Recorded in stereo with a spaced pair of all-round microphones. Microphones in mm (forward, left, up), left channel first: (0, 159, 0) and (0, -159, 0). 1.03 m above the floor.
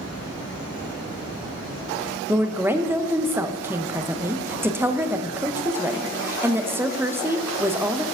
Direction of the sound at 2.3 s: 5° right (ahead or behind).